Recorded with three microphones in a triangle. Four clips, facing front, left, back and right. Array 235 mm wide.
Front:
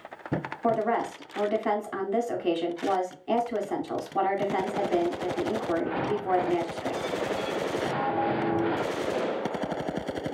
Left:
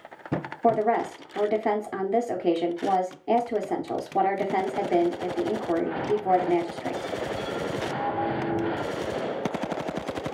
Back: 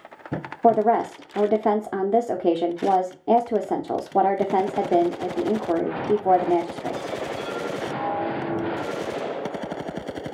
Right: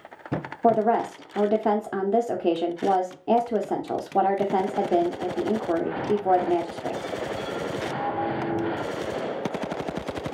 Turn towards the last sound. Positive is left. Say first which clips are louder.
# right 2 dB, back 8 dB
turn(degrees=-165)